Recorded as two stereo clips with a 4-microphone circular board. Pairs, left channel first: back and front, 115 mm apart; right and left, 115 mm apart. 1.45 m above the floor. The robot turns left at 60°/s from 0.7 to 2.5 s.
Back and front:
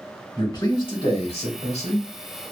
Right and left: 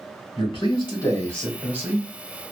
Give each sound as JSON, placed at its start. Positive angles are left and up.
{"t": 0.4, "sound": "a man speaking", "azimuth_deg": -130, "distance_m": 1.3}